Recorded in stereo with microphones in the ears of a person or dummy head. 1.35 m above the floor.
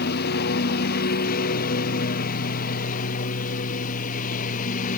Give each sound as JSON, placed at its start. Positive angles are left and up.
{"t": 0.0, "sound": "a lawn mower", "side_deg": 55}